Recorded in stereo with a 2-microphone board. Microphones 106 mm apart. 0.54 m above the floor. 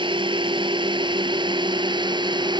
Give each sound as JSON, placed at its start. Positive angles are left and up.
{"t": 0.0, "sound": "a drone", "side_deg": -50}